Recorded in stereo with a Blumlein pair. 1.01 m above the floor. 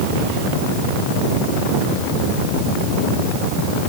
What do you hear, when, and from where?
Only background noise.